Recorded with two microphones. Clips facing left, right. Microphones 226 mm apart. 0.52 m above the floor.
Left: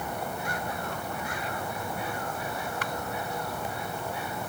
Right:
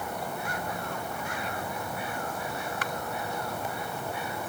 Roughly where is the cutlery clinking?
No cutlery clinking in this recording.